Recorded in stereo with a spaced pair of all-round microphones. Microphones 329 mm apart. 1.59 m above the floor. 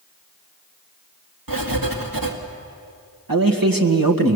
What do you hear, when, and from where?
1.5 s writing: 75° right (ahead or behind), 2.5 m
3.3 s a man speaking: 75° right (ahead or behind), 1.9 m